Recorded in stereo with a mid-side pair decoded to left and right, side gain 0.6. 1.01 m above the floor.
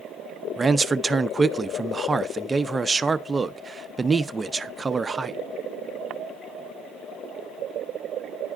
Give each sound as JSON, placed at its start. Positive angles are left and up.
{"t": 0.6, "sound": "a man speaking", "azimuth_deg": -20, "distance_m": 0.5}